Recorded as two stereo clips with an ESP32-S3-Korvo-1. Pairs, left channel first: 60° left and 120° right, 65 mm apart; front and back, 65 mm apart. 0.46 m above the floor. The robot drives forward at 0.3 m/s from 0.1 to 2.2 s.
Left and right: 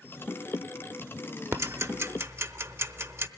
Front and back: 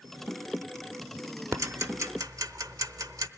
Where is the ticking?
155° right, 0.7 m; by 3.3 s 160° right, 0.9 m.